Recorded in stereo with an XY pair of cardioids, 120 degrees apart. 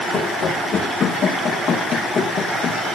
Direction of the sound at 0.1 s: 45° left.